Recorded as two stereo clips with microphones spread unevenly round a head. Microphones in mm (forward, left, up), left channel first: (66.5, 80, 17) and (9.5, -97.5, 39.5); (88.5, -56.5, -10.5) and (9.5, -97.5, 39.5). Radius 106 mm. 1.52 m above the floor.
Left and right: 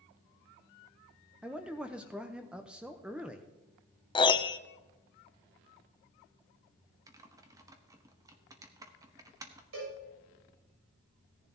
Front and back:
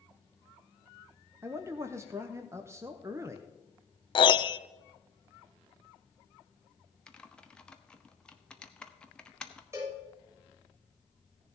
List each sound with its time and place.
1.4 s a man speaking: 170° left, 0.8 m
4.2 s a piano: 5° left, 0.6 m
7.1 s typing on a keyboard: 125° right, 0.8 m
9.7 s a cowbell: 95° right, 7 m